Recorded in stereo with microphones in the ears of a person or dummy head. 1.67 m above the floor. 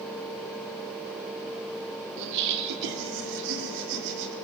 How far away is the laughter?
About 3.5 m.